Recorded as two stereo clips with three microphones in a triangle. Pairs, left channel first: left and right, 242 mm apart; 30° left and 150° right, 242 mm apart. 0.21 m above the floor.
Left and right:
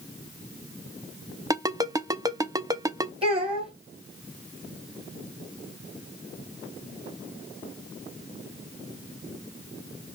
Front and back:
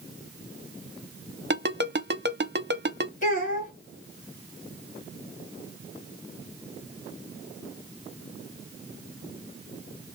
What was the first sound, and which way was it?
A ringtone, 160° right.